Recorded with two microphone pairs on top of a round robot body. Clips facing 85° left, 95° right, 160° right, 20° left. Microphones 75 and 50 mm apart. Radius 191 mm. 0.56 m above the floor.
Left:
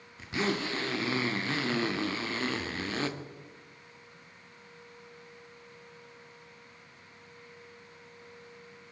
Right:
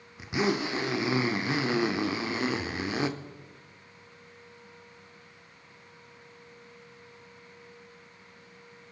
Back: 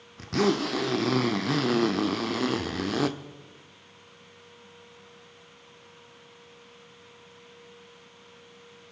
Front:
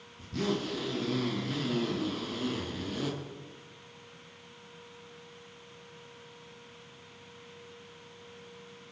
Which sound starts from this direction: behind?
A zipper, at 0.2 s.